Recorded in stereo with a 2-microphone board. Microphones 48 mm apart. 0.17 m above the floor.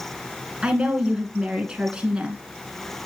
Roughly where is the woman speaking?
Right.